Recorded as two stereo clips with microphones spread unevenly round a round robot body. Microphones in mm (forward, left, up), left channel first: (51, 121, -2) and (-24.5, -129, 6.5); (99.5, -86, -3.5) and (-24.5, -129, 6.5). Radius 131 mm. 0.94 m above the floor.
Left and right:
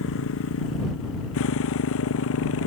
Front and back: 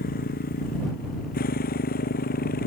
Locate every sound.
0.0 s a motorcycle: 30° left; by 2.7 s 35° left